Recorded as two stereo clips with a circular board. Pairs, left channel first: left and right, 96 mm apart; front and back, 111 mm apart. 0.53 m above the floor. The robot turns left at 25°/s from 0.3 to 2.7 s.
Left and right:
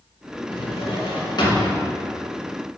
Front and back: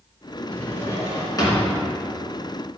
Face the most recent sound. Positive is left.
turn(degrees=20)